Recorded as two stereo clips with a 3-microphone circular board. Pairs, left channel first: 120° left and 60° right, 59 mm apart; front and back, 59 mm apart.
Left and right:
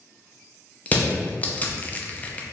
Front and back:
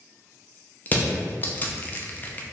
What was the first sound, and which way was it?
Crushing, 55° left.